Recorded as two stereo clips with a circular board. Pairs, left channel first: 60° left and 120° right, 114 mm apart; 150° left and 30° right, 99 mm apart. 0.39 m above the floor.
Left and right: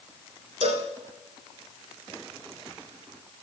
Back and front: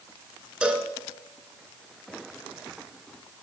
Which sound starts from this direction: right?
A cowbell, at 0.6 s.